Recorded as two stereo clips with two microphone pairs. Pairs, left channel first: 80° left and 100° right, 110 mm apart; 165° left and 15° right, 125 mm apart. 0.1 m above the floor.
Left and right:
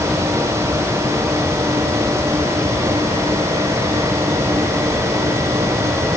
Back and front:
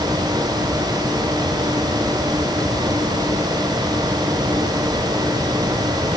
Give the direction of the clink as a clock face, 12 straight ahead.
No clink in this recording.